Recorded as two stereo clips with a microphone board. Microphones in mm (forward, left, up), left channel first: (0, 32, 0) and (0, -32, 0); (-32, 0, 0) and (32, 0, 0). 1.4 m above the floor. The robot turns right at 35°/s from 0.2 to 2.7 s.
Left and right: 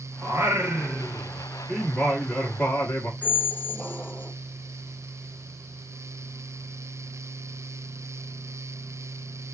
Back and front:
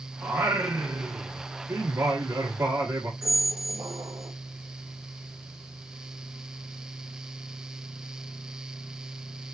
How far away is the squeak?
About 0.9 m.